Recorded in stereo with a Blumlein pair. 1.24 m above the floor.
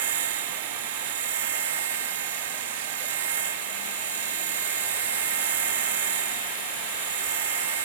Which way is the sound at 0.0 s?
65° right.